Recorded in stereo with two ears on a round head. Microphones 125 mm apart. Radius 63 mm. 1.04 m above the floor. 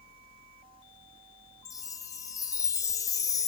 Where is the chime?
25° left (ahead or behind), 0.5 m.